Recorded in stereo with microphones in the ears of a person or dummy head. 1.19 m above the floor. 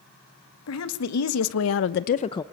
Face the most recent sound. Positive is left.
turn(degrees=20)  # may be behind; listen again after turning